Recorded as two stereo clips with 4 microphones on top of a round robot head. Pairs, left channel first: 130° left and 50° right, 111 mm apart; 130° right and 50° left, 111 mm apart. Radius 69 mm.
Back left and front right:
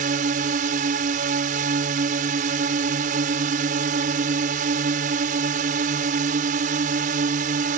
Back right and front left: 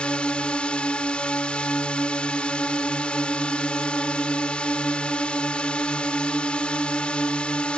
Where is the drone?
50° right.